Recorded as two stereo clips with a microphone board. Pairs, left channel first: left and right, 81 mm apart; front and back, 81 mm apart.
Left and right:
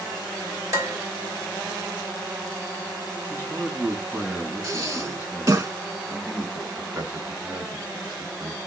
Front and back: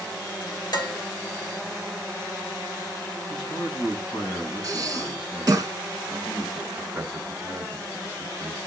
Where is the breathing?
135° right, 1.8 m.